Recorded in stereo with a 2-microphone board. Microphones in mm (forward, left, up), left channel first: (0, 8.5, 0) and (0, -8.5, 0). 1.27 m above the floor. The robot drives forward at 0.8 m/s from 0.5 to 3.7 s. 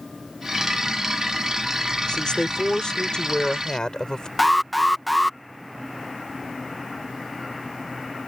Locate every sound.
2.1 s a woman speaking: 60° left (ahead or behind); by 4.3 s 50° left (ahead or behind)
4.4 s an alarm: centre (ahead or behind)